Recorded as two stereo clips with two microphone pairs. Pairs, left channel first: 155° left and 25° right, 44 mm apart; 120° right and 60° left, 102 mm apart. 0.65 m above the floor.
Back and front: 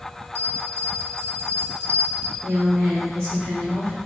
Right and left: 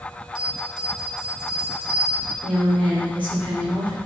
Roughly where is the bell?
Ahead.